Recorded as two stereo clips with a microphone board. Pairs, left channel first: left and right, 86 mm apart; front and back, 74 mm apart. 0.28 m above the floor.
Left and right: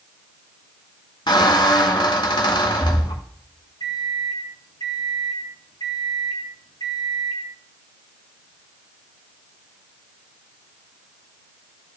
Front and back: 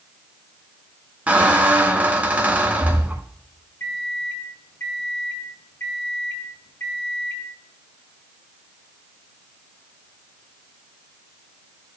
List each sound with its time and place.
1.3 s a squeak: 110° left, 1.1 m
3.8 s a microwave: 55° left, 5 m